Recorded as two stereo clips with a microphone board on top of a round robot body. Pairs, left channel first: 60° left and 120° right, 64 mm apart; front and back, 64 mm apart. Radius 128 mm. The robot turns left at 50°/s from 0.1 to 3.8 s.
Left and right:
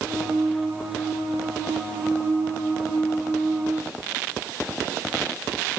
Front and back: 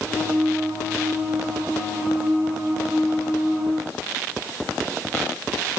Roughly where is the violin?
No violin in this recording.